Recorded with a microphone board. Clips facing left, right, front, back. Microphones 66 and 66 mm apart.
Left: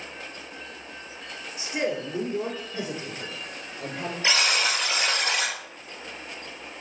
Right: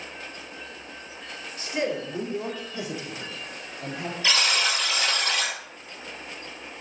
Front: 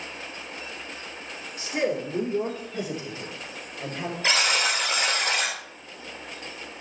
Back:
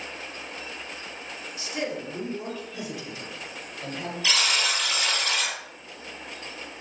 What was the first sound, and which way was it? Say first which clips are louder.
A man speaking: even, front 5 dB; 20° left.